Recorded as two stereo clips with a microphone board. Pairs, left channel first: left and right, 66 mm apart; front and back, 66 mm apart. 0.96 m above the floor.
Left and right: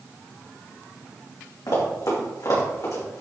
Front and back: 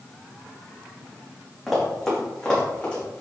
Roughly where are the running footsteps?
Left.